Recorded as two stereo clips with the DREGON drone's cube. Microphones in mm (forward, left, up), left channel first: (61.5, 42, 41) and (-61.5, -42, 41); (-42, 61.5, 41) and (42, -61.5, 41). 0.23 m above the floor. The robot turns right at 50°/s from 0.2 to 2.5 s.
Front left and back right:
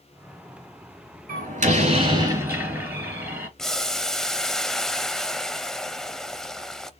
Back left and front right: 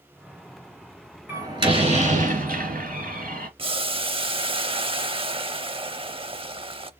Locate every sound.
1.3 s a door slam: 130° right, 3 m; by 3.5 s 70° right, 3 m
3.6 s boiling: 50° right, 0.6 m